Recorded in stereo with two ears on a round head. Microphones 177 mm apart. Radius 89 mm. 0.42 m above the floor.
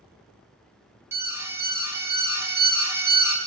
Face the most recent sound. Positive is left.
turn(degrees=-15)  # may be behind; listen again after turning